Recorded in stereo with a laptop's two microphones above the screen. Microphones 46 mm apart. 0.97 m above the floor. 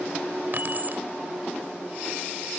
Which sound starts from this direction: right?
Keys jangling, at 0.5 s.